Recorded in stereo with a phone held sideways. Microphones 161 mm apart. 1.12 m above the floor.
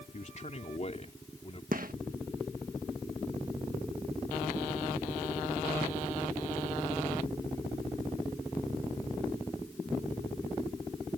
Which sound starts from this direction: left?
A man speaking, at 0.1 s.